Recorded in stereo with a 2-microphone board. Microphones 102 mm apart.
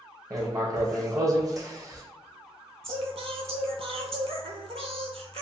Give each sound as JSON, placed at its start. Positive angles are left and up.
{"t": 0.3, "sound": "writing", "side_deg": -35, "distance_m": 0.8}
{"t": 2.8, "sound": "singing", "side_deg": -75, "distance_m": 0.5}